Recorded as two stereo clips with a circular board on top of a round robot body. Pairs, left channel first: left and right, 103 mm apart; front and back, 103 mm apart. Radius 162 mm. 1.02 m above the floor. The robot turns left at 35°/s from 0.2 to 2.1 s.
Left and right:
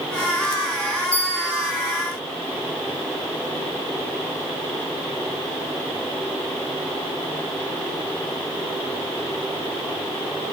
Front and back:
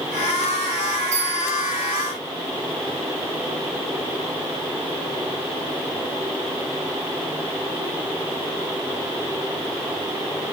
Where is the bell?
170° left, 0.9 m; by 1.7 s 150° left, 0.9 m.